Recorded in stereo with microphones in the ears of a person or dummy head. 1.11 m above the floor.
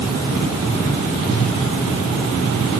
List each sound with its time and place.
1.3 s a whoosh: 80° right, 2.5 m